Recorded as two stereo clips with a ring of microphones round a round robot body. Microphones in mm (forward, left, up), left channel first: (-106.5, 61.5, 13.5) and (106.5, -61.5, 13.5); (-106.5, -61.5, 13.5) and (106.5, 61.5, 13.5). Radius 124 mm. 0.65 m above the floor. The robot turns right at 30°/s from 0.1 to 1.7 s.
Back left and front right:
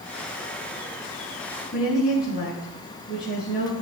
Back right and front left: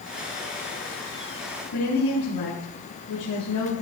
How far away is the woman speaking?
About 6.5 m.